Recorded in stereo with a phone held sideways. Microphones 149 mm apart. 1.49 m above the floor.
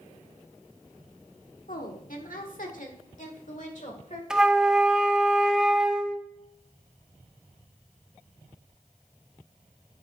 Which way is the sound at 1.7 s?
80° left.